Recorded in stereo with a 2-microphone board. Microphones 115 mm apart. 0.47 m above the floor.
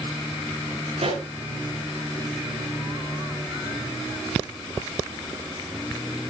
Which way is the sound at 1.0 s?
80° right.